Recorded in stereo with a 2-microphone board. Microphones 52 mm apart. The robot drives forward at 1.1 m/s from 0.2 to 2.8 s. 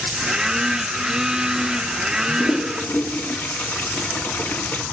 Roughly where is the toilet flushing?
Left.